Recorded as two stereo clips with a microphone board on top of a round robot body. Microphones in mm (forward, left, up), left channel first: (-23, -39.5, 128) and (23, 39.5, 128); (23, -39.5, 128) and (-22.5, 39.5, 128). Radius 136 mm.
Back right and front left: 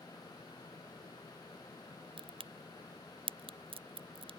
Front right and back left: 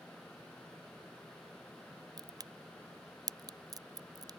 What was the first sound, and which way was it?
A crack, 70° left.